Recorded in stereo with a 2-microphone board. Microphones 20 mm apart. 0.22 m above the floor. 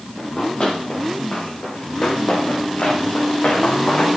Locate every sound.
0.2 s running footsteps: 50° left (ahead or behind), 4.5 m; by 4.1 s 80° left, 4 m